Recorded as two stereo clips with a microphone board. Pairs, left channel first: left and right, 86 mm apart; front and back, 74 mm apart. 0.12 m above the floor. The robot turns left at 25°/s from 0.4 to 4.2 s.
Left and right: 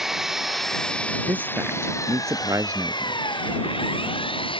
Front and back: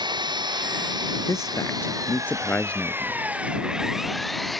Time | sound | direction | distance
0.0 | an engine running | 175° right | ?
1.3 | a man speaking | 25° right | ?